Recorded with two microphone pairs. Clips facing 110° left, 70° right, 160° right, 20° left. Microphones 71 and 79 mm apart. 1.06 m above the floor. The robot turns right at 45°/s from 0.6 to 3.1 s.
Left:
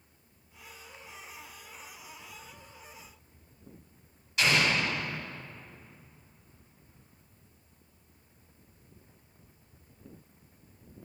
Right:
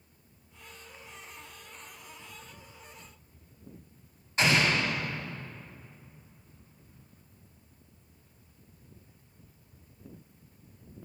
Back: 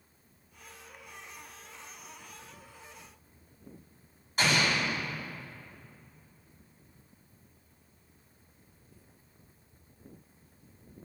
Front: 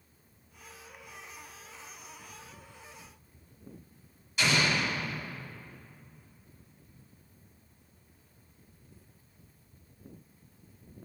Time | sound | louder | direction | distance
4.4 | an explosion | right 1 dB, even | 120° right | 1.7 m